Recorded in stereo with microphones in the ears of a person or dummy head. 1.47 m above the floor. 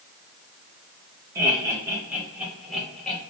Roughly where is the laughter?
Centre.